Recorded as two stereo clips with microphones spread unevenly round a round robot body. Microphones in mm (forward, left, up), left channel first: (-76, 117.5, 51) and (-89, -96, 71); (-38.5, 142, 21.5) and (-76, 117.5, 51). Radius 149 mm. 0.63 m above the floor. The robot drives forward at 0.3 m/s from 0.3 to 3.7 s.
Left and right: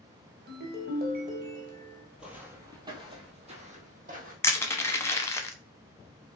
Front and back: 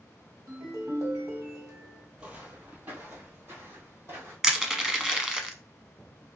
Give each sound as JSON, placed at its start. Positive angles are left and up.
{"t": 0.5, "sound": "a ringtone", "azimuth_deg": -135, "distance_m": 1.1}
{"t": 2.2, "sound": "footsteps", "azimuth_deg": -175, "distance_m": 1.1}
{"t": 4.4, "sound": "crushing", "azimuth_deg": 50, "distance_m": 0.8}